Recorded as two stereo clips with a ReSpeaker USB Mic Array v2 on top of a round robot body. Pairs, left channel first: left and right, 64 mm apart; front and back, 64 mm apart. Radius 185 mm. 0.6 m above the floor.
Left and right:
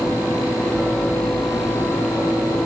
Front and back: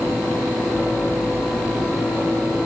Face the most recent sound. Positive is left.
No sound to turn to.